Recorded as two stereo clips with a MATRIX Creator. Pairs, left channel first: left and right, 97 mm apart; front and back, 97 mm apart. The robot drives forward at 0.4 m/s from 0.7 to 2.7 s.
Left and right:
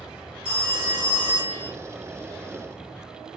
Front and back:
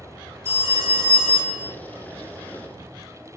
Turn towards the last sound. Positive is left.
turn(degrees=25)